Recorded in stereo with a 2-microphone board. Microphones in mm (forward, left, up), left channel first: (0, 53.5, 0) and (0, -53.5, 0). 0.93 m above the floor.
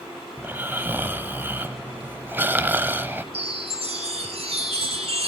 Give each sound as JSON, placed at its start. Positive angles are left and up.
{"t": 0.4, "sound": "snoring", "side_deg": -20, "distance_m": 1.1}
{"t": 3.3, "sound": "a chime", "side_deg": -65, "distance_m": 3.0}